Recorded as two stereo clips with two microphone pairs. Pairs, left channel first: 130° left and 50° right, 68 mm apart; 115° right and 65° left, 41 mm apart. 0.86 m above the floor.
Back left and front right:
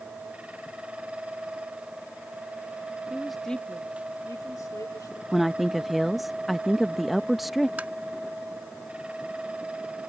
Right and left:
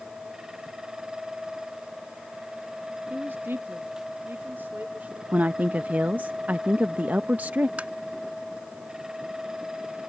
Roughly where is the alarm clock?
I don't hear an alarm clock.